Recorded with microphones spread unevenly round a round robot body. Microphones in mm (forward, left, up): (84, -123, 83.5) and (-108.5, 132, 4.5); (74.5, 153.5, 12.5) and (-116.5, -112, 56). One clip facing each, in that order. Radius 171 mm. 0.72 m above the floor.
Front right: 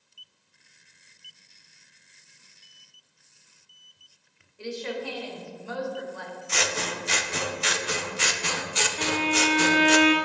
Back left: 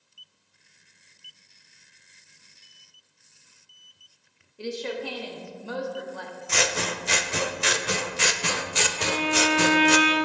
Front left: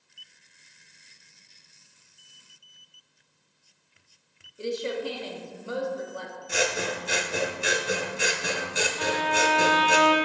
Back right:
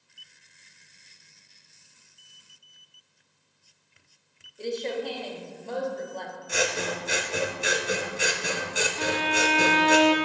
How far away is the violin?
About 0.9 m.